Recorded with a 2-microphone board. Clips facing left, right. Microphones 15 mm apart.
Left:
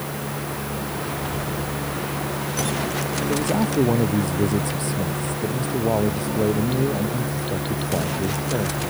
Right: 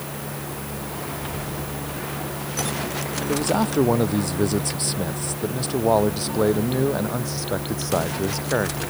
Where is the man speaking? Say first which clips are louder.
Right 1 dB; 30° right (ahead or behind); by 8.9 s 60° right (ahead or behind).